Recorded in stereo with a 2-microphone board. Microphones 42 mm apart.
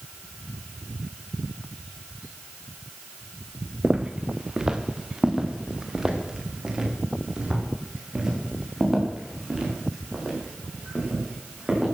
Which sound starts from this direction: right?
Footsteps, at 3.8 s.